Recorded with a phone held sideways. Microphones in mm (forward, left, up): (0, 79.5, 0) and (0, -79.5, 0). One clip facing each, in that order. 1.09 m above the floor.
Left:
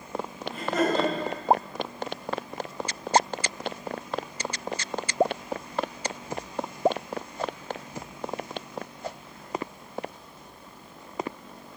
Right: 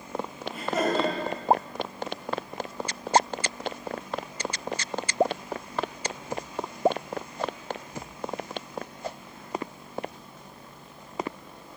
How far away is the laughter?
About 2.0 m.